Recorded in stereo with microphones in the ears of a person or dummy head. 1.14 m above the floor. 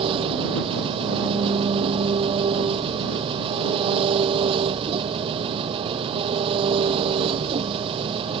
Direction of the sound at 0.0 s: 30° right (ahead or behind).